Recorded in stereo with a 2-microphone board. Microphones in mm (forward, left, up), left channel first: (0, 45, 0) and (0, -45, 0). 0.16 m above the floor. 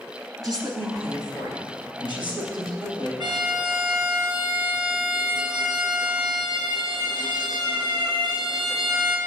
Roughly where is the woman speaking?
Right.